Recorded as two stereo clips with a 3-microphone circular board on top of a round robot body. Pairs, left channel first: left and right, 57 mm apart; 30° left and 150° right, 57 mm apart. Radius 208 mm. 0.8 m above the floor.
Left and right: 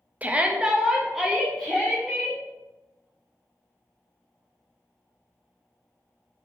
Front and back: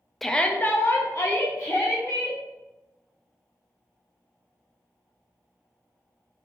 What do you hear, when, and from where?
0.2 s a shout: 55° right, 0.5 m; by 2.4 s 5° left, 1.4 m